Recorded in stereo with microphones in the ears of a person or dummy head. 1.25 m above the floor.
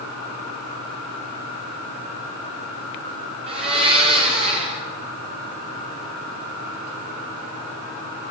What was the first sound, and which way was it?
A blender, 25° right (ahead or behind).